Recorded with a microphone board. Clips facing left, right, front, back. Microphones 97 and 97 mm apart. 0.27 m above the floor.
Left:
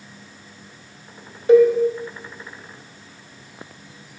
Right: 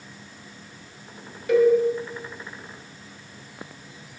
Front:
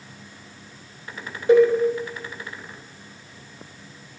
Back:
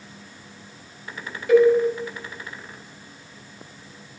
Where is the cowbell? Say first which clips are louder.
Left 5 dB, even; 45° left, 1.0 m.